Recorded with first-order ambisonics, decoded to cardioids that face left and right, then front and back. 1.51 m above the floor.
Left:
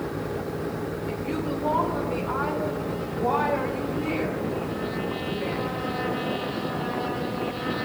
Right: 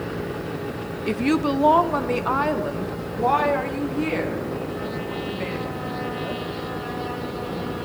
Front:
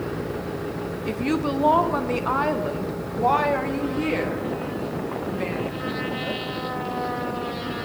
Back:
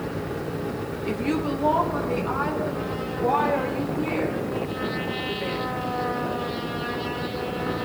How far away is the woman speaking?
About 0.9 m.